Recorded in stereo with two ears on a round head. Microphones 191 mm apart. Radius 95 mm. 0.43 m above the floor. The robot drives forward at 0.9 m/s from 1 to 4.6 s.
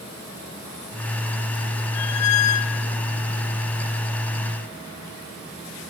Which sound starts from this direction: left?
A squeak, at 1.9 s.